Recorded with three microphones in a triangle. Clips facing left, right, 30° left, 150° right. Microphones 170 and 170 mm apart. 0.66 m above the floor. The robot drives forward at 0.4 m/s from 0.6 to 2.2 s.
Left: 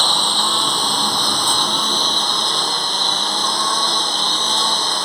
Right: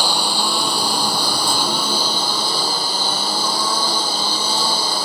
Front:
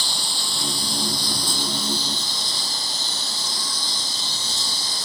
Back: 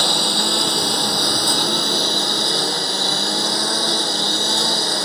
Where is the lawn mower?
170° right.